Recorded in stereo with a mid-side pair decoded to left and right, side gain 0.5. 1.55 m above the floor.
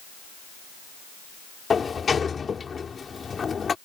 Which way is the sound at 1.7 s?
35° left.